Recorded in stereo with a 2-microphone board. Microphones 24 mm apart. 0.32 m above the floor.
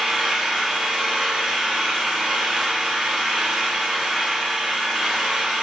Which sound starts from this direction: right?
An engine running, at 0.0 s.